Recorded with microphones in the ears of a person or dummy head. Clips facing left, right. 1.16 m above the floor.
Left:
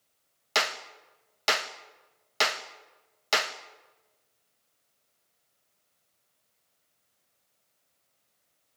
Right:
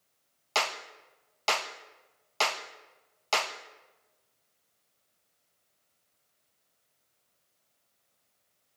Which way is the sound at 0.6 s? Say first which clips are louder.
Left 1 dB; 20° left (ahead or behind).